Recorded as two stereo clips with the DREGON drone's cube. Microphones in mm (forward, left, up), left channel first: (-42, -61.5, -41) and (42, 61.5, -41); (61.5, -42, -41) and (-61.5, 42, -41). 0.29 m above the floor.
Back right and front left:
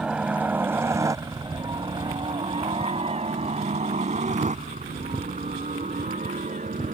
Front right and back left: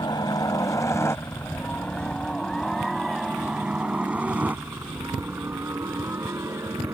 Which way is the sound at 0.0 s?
20° right.